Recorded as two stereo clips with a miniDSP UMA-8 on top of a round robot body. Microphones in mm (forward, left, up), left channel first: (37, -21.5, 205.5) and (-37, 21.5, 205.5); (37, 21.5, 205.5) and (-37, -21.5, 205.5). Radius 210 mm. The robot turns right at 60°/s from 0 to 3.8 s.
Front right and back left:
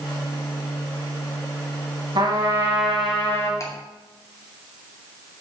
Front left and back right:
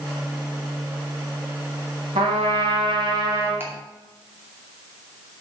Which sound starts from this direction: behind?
A trumpet, at 2.1 s.